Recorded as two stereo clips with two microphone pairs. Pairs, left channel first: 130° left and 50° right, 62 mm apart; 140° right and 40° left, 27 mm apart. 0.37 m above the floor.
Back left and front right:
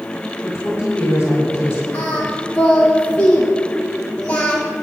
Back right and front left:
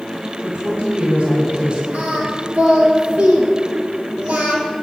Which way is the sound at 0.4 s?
85° left.